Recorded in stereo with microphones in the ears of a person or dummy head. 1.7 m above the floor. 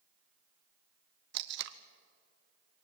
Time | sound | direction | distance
1.3 | tape being pulled | 70° right (ahead or behind) | 1.1 m